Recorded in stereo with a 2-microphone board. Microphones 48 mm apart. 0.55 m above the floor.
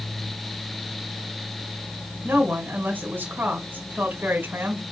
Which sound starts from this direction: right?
A woman speaking, at 2.2 s.